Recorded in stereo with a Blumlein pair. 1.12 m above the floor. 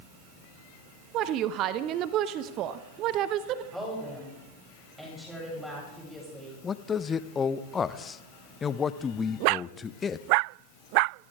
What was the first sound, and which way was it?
A woman speaking, 35° right.